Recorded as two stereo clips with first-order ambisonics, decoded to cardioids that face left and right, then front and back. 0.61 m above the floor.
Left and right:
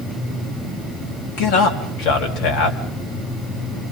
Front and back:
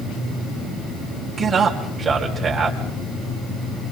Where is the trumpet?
I don't hear a trumpet.